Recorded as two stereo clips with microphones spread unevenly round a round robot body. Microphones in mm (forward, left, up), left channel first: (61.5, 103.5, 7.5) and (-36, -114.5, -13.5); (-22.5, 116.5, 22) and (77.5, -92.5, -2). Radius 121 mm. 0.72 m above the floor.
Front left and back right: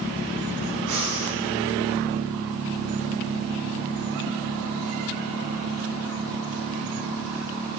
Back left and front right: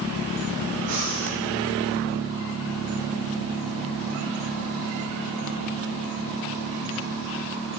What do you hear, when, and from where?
0.9 s breathing: 125° right, 8 m